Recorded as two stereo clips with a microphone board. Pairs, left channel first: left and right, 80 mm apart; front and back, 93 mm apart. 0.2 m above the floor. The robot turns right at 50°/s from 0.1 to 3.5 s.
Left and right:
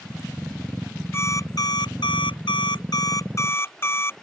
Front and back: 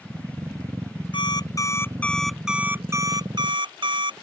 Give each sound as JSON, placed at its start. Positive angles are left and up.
{"t": 1.1, "sound": "an alarm clock", "azimuth_deg": 30}